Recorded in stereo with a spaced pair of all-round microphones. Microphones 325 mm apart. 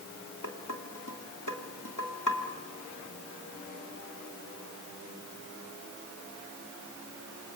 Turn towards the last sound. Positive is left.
turn(degrees=65)  # may be behind; listen again after turning